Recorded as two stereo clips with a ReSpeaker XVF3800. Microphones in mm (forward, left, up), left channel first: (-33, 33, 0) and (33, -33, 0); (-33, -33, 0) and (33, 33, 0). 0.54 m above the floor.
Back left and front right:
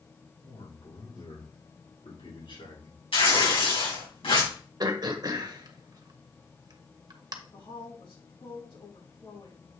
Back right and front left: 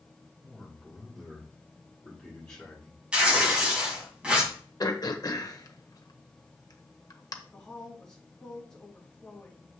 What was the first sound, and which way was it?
A man speaking, 145° left.